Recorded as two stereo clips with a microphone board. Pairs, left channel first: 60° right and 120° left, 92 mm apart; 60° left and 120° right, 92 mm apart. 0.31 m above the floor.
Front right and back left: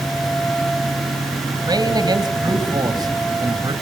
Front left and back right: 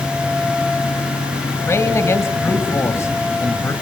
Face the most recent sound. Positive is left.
turn(degrees=110)